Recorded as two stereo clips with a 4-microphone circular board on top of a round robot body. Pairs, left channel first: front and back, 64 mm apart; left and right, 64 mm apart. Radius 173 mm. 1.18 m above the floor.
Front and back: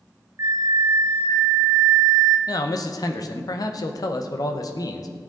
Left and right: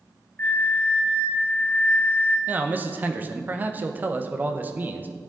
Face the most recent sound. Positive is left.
turn(degrees=-25)